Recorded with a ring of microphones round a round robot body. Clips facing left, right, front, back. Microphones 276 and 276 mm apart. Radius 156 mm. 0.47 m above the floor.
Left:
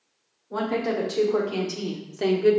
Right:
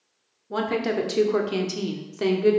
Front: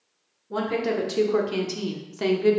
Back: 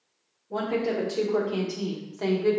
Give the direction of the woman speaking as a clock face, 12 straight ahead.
2 o'clock.